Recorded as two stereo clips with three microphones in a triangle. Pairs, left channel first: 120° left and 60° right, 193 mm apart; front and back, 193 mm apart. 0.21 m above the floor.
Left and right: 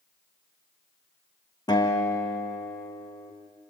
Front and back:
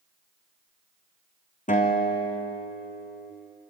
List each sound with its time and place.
1.7 s a guitar: 50° left, 2.5 m